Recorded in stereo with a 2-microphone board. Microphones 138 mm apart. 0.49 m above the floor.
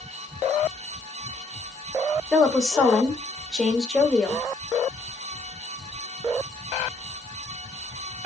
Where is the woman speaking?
Centre (ahead or behind), 1.6 m.